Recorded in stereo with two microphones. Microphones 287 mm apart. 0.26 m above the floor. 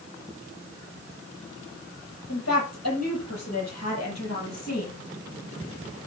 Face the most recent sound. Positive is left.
turn(degrees=60)  # may be behind; listen again after turning